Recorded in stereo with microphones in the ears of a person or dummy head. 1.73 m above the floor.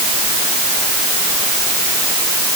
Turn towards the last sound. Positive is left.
No sound to turn to.